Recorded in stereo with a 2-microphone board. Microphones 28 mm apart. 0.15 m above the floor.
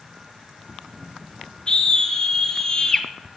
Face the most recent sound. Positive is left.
turn(degrees=15)  # may be behind; listen again after turning